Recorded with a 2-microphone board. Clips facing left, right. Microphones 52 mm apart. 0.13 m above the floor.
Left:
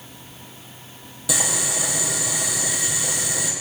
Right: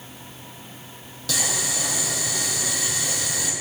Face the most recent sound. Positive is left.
turn(degrees=15)  # may be behind; listen again after turning